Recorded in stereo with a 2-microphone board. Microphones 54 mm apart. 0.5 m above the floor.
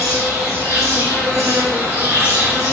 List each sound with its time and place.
0.0 s an insect: 60° right (ahead or behind), 2.0 m